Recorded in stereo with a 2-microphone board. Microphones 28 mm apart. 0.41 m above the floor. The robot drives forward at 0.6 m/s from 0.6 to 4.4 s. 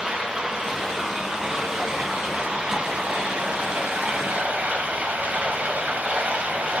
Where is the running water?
25° right (ahead or behind), 3 m; by 6.8 s 60° right (ahead or behind), 1.5 m.